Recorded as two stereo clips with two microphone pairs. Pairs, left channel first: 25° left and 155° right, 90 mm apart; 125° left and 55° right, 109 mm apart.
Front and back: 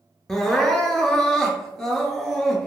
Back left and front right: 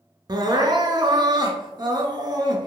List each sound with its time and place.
0.3 s crying: 55° right, 0.5 m